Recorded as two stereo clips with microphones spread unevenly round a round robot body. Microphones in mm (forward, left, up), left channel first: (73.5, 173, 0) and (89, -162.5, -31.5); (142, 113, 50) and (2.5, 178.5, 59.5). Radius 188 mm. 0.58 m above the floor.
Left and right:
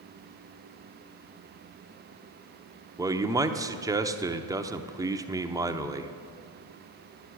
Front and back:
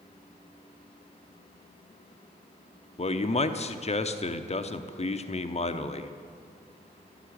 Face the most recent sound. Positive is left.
turn(degrees=-15)